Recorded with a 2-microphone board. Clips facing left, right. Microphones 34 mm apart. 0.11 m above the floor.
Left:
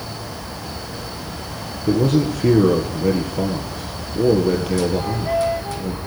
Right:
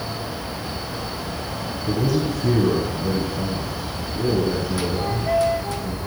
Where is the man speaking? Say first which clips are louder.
Left 5 dB; 60° left (ahead or behind), 2.5 m.